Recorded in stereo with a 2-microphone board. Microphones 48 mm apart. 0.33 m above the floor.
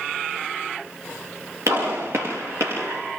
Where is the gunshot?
80° right, 9.5 m.